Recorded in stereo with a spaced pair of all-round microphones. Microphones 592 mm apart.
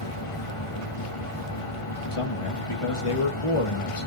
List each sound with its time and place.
0.0 s a fan: 60° left (ahead or behind), 2 m
2.1 s a man speaking: 60° left (ahead or behind), 1.8 m